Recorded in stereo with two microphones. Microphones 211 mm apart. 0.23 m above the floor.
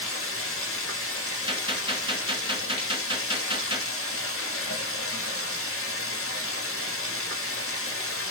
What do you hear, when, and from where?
0.0 s running water: 85° left, 1.2 m
1.5 s a gunshot: 25° right (ahead or behind), 1.3 m